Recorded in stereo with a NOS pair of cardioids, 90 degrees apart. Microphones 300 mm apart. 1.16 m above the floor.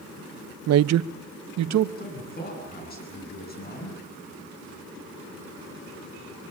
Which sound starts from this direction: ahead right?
A man speaking, at 0.7 s.